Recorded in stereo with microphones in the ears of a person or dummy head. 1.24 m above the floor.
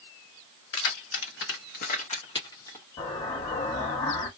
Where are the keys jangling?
70° left (ahead or behind), 1.0 m; by 2.9 s 15° left (ahead or behind), 1.0 m.